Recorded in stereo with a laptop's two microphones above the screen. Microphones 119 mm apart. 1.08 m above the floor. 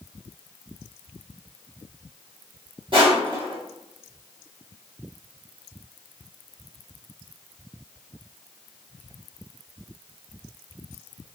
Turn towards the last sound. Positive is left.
turn(degrees=-45)  # may be behind; listen again after turning